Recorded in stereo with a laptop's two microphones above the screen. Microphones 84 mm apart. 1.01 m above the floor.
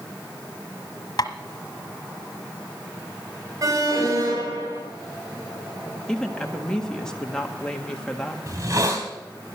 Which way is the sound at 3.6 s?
45° right (ahead or behind).